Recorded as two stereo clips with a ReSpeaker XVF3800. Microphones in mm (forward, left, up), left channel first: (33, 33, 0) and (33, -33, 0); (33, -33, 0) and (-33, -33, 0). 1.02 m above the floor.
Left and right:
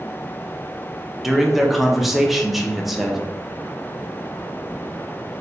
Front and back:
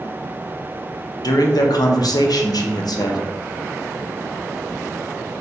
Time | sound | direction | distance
1.2 | a man speaking | straight ahead | 0.6 m